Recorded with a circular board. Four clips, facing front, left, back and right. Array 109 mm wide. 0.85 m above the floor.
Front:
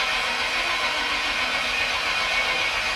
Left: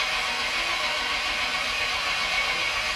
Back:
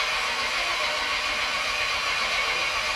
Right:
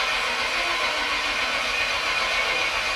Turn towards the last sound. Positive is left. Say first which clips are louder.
# right 3 dB, front 2 dB
turn(degrees=-20)